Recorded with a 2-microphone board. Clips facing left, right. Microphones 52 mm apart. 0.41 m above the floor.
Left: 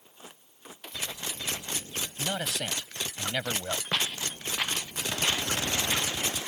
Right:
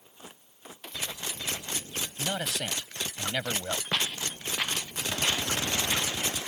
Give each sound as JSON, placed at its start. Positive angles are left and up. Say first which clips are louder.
{"t": 2.2, "sound": "a man speaking", "louder": "even", "side_deg": 5}
{"t": 3.9, "sound": "footsteps", "louder": "even", "side_deg": 10}